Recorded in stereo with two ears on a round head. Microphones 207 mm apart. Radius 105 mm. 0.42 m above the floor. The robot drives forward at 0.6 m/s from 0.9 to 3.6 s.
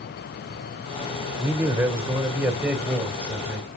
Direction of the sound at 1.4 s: 10° right (ahead or behind).